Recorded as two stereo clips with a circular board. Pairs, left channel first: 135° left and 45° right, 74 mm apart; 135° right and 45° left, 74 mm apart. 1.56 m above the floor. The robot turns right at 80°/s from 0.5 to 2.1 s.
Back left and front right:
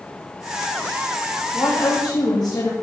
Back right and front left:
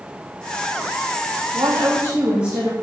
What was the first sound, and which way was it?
A woman speaking, 75° left.